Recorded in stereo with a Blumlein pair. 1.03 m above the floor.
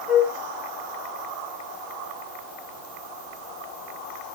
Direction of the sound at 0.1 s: 20° left.